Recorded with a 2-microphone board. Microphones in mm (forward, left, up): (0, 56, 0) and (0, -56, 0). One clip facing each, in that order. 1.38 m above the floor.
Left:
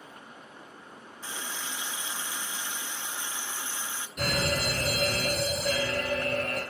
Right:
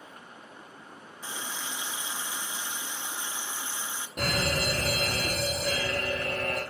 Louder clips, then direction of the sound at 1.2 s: Right 1 dB; 15° right (ahead or behind).